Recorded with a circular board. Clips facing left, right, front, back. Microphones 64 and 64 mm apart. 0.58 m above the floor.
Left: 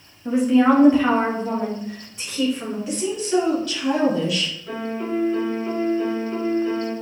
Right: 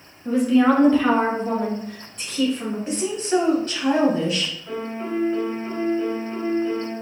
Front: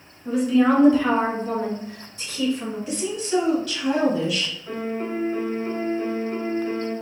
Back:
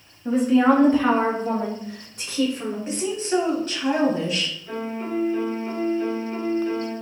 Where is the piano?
Straight ahead, 1.5 m.